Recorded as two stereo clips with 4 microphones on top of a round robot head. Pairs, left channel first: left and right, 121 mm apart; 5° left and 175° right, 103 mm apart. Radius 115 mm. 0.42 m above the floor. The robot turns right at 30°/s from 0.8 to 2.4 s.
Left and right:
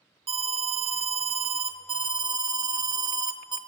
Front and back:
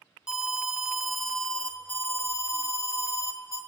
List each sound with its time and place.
0.3 s an alarm: 95° right, 0.8 m; by 3.6 s 45° right, 0.8 m